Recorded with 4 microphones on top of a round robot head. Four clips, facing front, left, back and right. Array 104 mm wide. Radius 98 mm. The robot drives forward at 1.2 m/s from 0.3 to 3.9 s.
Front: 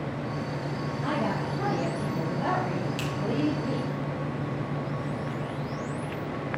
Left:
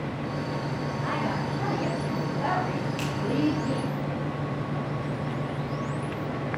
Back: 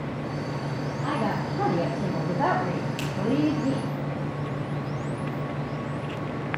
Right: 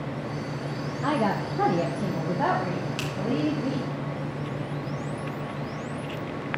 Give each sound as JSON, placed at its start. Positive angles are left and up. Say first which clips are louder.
{"t": 1.0, "sound": "a woman speaking", "louder": "right 6 dB, back 1 dB", "azimuth_deg": -85, "distance_m": 1.2}
{"t": 3.0, "sound": "a finger snap", "louder": "left 1 dB, back 1 dB", "azimuth_deg": -100, "distance_m": 3.0}